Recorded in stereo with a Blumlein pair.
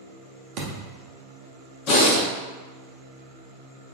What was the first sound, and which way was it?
A thud, 35° right.